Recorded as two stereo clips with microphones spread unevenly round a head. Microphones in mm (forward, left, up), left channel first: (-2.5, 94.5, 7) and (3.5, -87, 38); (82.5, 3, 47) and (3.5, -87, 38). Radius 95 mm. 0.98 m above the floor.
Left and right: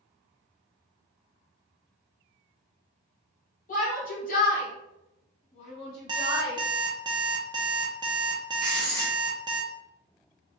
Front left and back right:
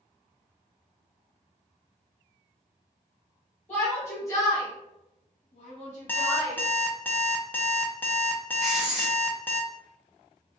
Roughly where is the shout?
Behind left.